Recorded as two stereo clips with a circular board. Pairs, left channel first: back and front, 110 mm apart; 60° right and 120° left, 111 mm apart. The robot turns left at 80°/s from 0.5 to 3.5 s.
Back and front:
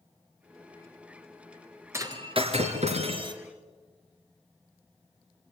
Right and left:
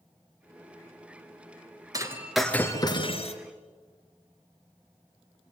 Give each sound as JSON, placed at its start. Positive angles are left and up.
{"t": 1.9, "sound": "breaking glass", "azimuth_deg": 65, "distance_m": 2.0}